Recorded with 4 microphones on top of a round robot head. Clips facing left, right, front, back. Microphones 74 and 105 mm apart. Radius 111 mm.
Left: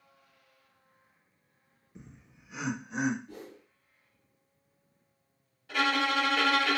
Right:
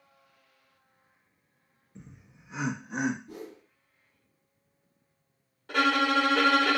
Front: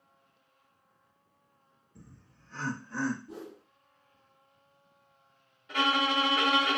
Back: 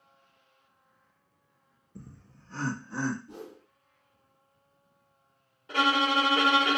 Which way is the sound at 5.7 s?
125° right.